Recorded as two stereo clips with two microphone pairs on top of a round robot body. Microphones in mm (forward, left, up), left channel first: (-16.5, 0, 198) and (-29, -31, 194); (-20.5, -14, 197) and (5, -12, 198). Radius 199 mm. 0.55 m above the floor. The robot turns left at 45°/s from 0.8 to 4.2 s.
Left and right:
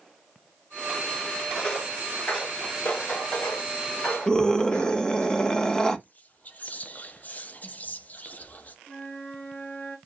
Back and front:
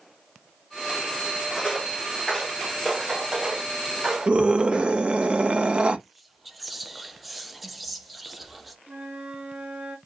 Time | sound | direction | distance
1.6 | footsteps | 115° left | 0.6 m
4.3 | a scream | 5° right | 1.2 m
6.0 | whispering | 90° left | 0.9 m
8.9 | a flute | 15° left | 3 m